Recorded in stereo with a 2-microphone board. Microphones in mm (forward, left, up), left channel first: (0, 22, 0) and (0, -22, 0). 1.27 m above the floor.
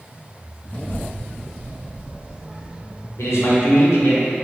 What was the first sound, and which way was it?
A child speaking, 30° left (ahead or behind).